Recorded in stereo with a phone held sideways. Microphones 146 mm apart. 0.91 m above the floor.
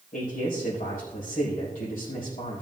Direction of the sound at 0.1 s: 70° left (ahead or behind).